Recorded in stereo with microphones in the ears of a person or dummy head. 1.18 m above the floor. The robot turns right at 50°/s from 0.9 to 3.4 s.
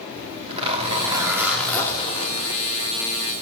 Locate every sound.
0.1 s a zipper: 30° right, 1.9 m; by 3.4 s 95° left, 1.9 m